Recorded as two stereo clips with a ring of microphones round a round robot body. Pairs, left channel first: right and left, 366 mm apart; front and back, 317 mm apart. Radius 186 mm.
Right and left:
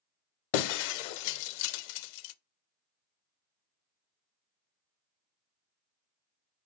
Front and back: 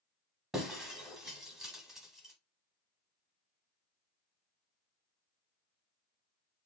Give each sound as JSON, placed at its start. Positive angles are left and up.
{"t": 0.5, "sound": "breaking glass", "azimuth_deg": -90, "distance_m": 0.5}